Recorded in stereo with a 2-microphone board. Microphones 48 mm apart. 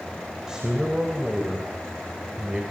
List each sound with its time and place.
0.5 s a man speaking: 15° right (ahead or behind), 3 m